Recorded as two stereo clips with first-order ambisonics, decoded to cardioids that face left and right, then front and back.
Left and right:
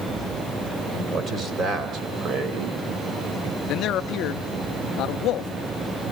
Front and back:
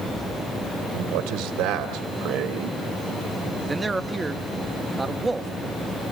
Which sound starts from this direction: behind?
A man speaking, at 0.9 s.